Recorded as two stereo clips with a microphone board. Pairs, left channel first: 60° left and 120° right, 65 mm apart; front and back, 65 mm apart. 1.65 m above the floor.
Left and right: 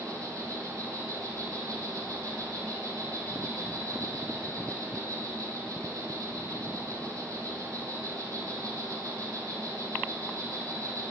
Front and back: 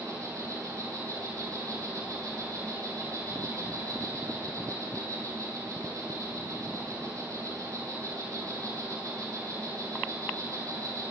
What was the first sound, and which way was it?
An insect, 150° right.